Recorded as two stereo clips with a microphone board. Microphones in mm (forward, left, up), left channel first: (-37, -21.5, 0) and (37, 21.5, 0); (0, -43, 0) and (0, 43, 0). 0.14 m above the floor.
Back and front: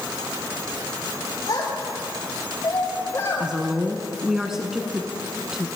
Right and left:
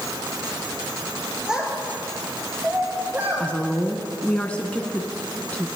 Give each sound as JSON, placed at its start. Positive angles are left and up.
{"t": 1.5, "sound": "a child speaking", "azimuth_deg": 175, "distance_m": 7.5}
{"t": 3.4, "sound": "a woman speaking", "azimuth_deg": -45, "distance_m": 1.0}